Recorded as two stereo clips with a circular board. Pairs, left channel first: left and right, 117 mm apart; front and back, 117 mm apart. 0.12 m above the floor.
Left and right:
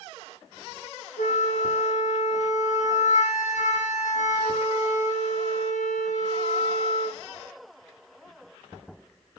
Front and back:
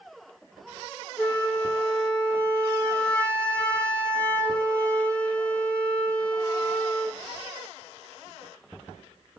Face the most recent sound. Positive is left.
turn(degrees=80)